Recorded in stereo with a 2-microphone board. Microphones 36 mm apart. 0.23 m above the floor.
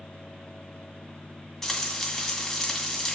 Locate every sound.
1.6 s frying: 15° left (ahead or behind), 2 m